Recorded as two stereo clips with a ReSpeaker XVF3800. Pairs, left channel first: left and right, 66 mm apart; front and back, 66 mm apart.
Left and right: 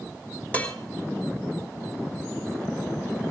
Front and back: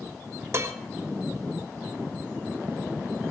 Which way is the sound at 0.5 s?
150° left.